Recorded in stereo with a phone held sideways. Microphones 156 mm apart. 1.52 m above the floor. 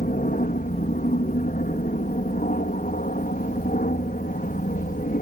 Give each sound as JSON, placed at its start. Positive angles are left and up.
{"t": 0.0, "sound": "an aircraft", "side_deg": 65}